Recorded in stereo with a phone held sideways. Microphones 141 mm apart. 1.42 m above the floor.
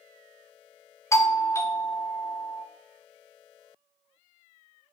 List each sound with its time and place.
1.1 s a doorbell: 20° left (ahead or behind), 0.8 m